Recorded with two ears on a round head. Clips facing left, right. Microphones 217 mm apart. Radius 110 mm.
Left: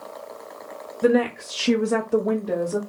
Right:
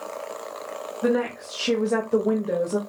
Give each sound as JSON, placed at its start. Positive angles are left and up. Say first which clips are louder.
{"t": 1.0, "sound": "a woman speaking", "louder": "left 4 dB", "side_deg": 40, "distance_m": 1.0}